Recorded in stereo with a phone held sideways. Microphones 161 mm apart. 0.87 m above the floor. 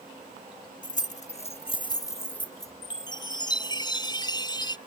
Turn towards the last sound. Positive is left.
turn(degrees=25)  # may be behind; listen again after turning